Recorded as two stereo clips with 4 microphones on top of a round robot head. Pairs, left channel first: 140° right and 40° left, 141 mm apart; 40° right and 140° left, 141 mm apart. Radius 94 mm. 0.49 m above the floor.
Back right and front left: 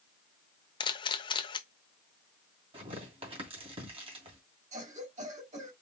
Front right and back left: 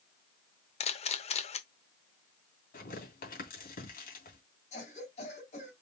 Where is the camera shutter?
85° right, 0.7 m.